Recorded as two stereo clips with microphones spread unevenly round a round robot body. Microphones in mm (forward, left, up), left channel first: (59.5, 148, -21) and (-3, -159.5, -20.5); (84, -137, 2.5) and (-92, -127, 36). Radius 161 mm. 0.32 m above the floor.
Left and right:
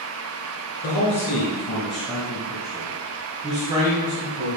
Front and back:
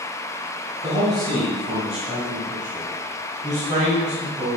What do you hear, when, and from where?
0.8 s a man speaking: 95° left, 1.4 m; by 4.6 s 130° right, 2.5 m